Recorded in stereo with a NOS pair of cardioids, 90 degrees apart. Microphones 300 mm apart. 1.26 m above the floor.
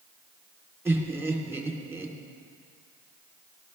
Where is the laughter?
5° right, 3 m.